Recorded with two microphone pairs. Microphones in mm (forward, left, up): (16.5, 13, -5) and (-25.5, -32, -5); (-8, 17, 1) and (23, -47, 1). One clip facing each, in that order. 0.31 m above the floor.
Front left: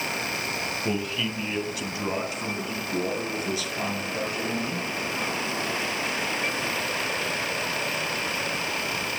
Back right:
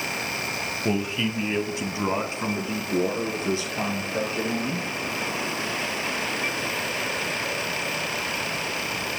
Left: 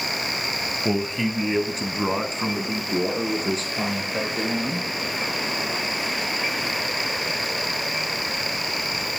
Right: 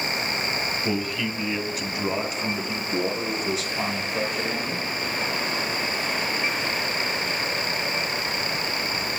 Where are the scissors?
No scissors in this recording.